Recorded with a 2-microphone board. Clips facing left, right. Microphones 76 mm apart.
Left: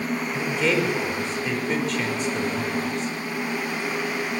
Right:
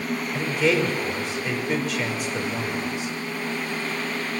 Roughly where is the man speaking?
Centre.